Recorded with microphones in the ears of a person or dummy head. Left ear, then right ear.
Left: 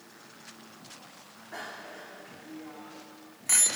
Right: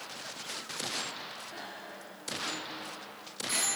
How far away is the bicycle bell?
About 2.5 m.